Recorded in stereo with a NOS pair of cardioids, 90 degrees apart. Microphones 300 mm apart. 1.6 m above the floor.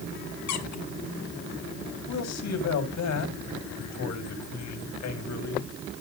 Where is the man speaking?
65° left, 7 m.